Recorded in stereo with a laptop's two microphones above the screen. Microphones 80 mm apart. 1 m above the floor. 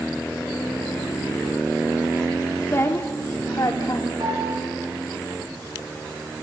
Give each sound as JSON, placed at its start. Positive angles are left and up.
{"t": 2.7, "sound": "a woman speaking", "side_deg": 30, "distance_m": 2.5}
{"t": 4.2, "sound": "a piano", "side_deg": -80, "distance_m": 4.5}